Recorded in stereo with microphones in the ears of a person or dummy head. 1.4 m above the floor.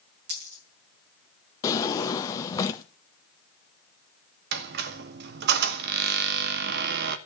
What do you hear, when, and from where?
0.3 s a dropped coin: 60° right (ahead or behind), 6 m
1.6 s a drawer: 20° left (ahead or behind), 0.9 m
4.5 s a squeak: 60° right (ahead or behind), 1.0 m